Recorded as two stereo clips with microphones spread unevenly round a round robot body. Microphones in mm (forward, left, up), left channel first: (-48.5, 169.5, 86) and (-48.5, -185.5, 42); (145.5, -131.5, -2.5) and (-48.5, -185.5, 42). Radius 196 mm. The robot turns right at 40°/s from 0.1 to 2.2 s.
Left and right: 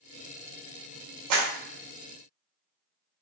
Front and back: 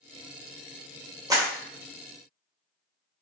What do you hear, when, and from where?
1.3 s a clap: 85° right, 1.5 m; by 1.5 s 75° right, 1.5 m